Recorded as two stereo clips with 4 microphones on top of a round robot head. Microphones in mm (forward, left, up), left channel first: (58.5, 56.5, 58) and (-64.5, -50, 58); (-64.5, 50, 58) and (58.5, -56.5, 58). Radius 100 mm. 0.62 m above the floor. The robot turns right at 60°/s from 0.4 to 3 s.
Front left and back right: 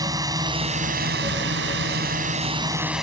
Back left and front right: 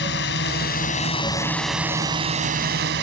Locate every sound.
0.0 s a drone: 150° left; by 3.0 s 50° right